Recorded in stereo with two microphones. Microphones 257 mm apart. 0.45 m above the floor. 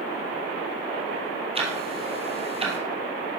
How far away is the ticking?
About 2 m.